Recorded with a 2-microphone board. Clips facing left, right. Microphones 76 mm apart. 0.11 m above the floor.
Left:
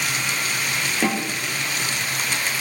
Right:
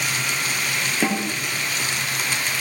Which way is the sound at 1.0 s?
5° right (ahead or behind).